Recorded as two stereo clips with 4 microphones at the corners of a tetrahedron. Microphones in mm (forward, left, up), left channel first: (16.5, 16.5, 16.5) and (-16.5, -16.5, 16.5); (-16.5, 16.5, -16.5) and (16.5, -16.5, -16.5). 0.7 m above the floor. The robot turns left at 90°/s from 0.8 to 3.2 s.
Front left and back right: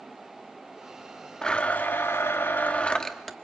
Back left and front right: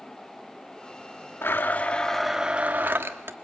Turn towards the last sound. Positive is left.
turn(degrees=-40)